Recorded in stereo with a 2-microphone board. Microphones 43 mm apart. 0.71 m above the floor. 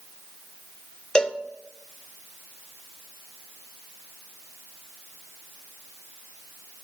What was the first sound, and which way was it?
A cowbell, 20° left (ahead or behind).